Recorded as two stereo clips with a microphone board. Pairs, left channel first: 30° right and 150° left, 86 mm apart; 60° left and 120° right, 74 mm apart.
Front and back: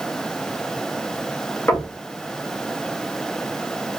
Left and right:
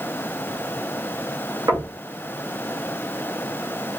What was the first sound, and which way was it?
Knocking, 90° right.